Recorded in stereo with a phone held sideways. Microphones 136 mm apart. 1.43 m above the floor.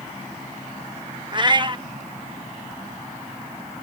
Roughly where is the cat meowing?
Right.